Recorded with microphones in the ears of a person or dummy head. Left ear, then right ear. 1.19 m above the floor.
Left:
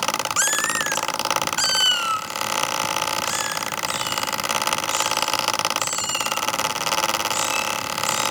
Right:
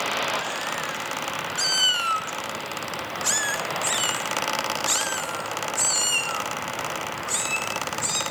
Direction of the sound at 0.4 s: 50° left (ahead or behind).